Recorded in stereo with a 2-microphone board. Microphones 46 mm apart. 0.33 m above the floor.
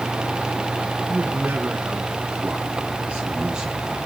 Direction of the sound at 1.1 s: 50° right (ahead or behind).